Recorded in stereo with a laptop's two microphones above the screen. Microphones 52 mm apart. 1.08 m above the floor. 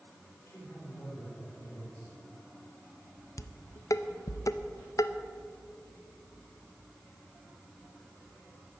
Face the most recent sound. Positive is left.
turn(degrees=80)